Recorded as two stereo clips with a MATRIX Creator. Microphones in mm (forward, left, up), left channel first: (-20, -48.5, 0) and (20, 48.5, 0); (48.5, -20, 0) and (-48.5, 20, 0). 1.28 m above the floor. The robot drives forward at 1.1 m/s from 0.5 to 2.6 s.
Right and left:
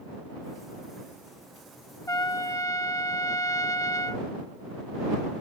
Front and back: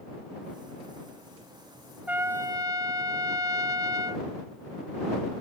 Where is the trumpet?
135° right; by 4.3 s 160° right.